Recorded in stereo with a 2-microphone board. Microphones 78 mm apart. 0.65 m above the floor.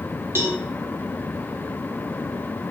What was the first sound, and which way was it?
A cowbell, 30° right (ahead or behind).